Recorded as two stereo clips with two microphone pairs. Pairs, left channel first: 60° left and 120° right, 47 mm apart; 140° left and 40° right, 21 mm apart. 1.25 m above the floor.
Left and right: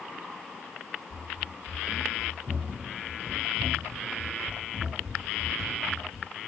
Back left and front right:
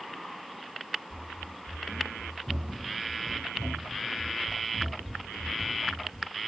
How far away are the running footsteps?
About 3 m.